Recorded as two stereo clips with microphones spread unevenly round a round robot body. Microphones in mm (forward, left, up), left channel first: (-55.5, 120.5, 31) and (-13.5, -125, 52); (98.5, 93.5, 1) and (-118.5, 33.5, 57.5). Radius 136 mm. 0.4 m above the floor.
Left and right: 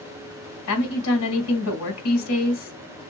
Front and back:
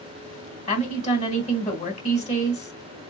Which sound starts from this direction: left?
A woman speaking, at 0.7 s.